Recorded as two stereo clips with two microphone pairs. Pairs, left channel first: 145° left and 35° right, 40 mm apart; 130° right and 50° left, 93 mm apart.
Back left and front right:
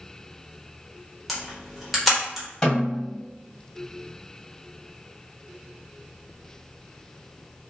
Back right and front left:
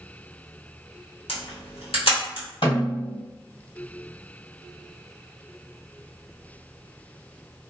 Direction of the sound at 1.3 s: 125° right.